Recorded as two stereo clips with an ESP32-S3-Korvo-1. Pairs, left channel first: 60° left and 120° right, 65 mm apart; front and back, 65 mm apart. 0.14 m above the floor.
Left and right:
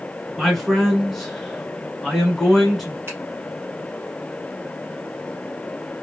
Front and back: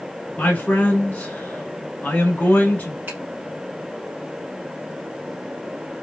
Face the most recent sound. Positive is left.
turn(degrees=-135)